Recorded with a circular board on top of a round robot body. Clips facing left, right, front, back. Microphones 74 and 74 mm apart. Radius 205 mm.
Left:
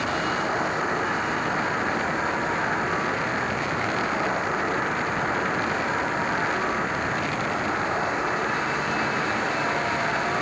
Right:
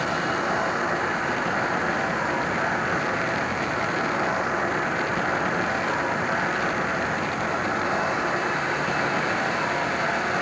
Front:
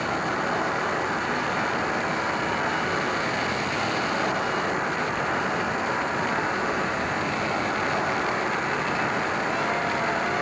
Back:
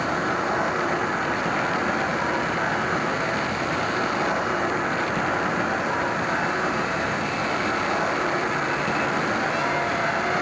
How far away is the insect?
About 7.5 m.